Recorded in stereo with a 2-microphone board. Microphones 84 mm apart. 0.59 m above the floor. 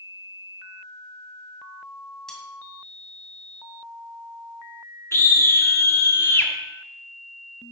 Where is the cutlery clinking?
5° left (ahead or behind), 2 m.